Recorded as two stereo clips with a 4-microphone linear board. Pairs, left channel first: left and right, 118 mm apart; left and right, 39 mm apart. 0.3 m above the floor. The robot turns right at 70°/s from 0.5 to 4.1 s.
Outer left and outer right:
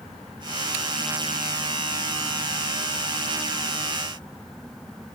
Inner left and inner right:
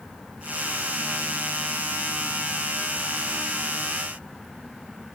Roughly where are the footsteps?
I don't hear footsteps.